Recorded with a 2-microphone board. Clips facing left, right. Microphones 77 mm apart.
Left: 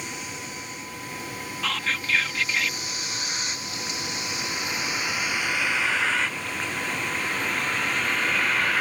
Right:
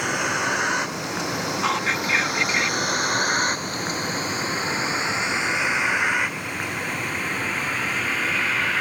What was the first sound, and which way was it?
A vehicle, 75° right (ahead or behind).